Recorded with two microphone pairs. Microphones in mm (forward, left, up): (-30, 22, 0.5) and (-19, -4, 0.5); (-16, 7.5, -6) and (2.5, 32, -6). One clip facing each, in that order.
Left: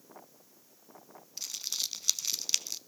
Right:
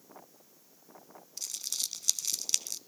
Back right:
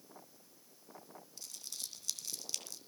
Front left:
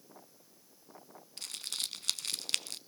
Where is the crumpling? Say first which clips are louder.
Left 1 dB, front left 10 dB; 45° left, 0.5 m.